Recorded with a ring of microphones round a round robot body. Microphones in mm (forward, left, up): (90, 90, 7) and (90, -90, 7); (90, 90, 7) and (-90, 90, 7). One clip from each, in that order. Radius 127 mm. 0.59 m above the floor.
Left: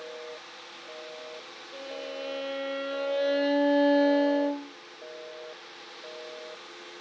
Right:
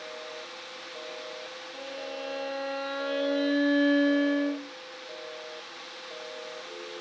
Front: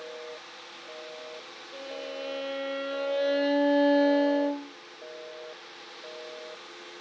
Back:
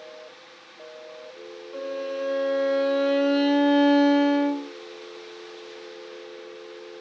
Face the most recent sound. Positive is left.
turn(degrees=-165)